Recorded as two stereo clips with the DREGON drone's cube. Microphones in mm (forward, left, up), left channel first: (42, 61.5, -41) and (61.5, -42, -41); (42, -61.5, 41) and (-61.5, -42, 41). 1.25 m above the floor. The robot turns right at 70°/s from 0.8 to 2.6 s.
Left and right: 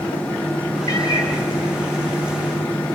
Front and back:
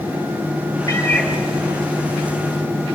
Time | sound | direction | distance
0.9 | a cat meowing | 50° left | 4.5 m